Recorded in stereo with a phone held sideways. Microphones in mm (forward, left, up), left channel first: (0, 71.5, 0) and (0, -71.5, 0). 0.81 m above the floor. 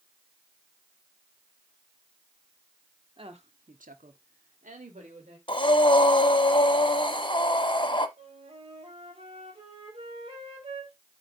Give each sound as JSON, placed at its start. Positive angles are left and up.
{"t": 3.2, "sound": "a woman speaking", "side_deg": -35, "distance_m": 1.5}
{"t": 5.5, "sound": "breathing", "side_deg": 35, "distance_m": 0.9}
{"t": 8.2, "sound": "a flute", "side_deg": -40, "distance_m": 3.5}